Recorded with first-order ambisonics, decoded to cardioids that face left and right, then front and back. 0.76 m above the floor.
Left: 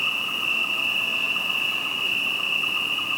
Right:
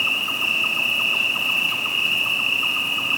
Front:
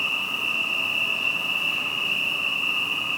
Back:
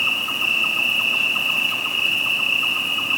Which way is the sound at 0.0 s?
130° right.